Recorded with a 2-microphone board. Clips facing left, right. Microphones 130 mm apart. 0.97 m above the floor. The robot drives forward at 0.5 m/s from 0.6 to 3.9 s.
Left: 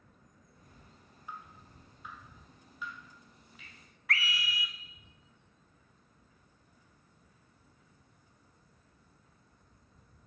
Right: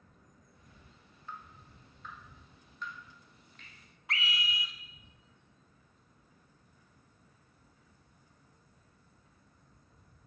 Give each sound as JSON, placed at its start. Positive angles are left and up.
{"t": 1.3, "sound": "dripping", "side_deg": 10, "distance_m": 1.0}
{"t": 4.1, "sound": "a scream", "side_deg": -20, "distance_m": 0.6}